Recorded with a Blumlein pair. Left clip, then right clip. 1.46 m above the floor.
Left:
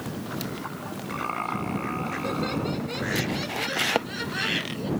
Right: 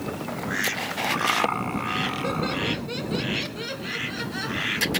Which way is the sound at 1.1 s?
15° right.